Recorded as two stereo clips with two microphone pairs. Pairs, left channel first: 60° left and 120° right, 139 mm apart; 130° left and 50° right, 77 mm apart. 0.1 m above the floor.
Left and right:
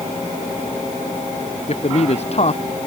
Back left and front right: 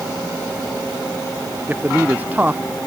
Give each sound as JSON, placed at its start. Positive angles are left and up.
{"t": 1.7, "sound": "a man speaking", "azimuth_deg": 15}